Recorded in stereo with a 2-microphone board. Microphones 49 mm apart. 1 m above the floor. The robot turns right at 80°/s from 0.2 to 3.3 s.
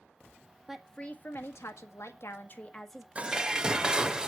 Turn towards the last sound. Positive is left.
turn(degrees=-15)  # may be behind; listen again after turning